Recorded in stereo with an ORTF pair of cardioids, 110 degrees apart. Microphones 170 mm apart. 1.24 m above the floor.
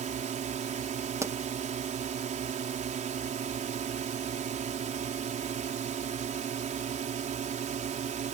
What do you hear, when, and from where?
0.0 s a drone: 50° right
1.2 s a pop: 15° right